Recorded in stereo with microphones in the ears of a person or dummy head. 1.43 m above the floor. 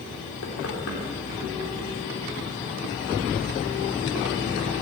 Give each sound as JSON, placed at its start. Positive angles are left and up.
{"t": 0.4, "sound": "knocking", "side_deg": 75, "distance_m": 3.5}